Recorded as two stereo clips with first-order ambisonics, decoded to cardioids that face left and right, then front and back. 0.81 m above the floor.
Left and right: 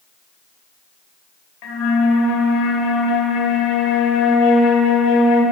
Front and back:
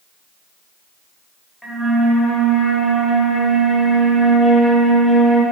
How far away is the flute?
About 1.7 m.